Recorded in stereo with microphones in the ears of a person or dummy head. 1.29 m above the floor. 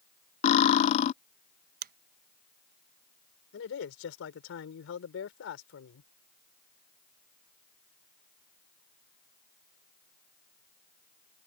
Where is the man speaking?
65° left (ahead or behind).